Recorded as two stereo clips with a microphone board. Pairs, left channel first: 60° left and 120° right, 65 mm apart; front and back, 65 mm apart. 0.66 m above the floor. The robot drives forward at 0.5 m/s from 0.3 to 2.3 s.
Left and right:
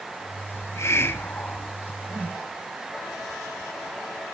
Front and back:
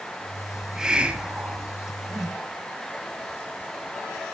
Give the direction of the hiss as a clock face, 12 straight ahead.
9 o'clock.